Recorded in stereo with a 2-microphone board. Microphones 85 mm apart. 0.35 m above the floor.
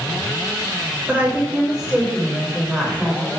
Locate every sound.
1.1 s a woman speaking: 20° right (ahead or behind), 1.3 m; by 3.3 s 10° left (ahead or behind), 1.7 m